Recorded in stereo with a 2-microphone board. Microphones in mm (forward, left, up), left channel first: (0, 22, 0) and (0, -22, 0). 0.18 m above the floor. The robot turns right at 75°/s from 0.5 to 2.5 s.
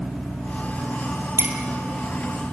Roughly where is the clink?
Right.